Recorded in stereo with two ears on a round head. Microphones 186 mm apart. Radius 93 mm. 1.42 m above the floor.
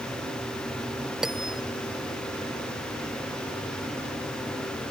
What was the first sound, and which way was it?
A bell, centre (ahead or behind).